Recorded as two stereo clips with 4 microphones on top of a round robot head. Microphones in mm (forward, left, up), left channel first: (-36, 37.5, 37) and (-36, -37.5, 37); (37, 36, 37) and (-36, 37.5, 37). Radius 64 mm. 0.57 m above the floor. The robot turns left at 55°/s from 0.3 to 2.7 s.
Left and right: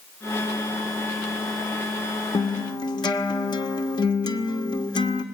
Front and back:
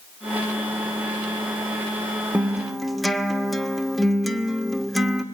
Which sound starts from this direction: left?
A guitar, at 2.3 s.